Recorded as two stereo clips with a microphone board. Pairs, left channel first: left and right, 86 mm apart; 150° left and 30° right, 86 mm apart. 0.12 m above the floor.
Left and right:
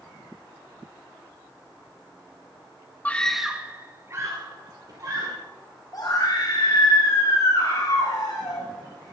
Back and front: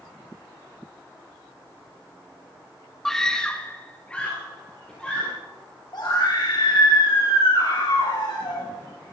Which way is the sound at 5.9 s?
125° left.